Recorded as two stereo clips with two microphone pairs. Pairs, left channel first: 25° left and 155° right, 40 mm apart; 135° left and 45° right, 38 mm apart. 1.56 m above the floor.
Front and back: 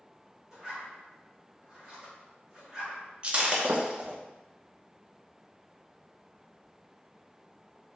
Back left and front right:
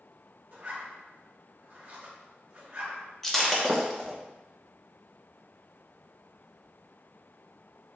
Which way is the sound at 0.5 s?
85° right.